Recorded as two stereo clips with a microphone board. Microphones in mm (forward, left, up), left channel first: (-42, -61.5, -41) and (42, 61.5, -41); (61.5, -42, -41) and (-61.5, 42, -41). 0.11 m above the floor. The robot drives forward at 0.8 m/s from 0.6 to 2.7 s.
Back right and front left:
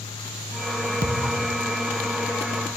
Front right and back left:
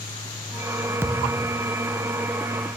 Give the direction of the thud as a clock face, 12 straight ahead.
10 o'clock.